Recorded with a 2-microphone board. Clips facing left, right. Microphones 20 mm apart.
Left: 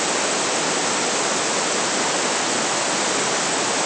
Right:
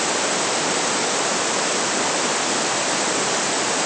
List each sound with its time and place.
Only background noise.